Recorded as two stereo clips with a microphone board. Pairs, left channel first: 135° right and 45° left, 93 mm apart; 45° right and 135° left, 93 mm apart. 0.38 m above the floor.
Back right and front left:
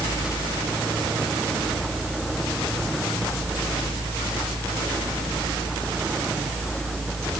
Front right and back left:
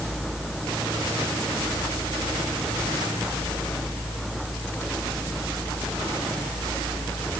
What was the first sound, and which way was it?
Only background noise.